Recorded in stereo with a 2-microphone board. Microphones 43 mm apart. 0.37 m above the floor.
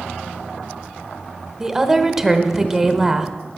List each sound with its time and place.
1.6 s a woman speaking: 10° right (ahead or behind), 1.0 m